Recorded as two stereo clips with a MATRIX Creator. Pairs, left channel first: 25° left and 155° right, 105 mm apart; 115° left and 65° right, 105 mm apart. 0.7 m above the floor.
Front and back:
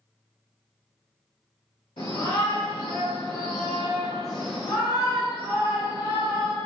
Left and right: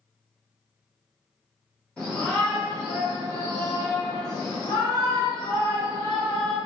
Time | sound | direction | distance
2.0 | a shout | 35° left | 1.6 m